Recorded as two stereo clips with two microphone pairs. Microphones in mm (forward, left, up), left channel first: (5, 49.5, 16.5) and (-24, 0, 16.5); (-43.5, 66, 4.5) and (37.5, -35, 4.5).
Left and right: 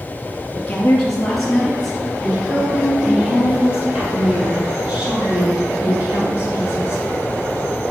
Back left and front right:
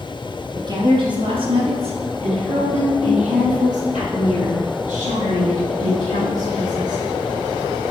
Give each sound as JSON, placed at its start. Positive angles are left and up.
{"t": 0.6, "sound": "a woman speaking", "azimuth_deg": -10, "distance_m": 1.4}